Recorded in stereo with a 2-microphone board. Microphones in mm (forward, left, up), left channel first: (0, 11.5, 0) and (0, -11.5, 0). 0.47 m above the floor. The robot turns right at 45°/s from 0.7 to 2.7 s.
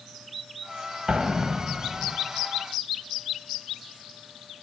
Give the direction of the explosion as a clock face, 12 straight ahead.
1 o'clock.